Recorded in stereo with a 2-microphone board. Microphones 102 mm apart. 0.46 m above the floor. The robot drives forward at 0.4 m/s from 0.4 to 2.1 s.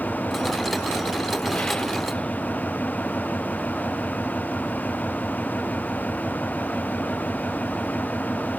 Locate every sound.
0.0 s an engine running: 10° left (ahead or behind)